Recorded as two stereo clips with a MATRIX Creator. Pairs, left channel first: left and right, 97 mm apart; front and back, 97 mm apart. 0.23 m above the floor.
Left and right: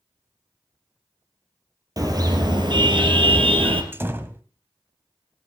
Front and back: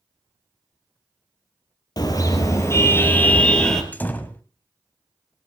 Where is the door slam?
50° right, 1.0 m.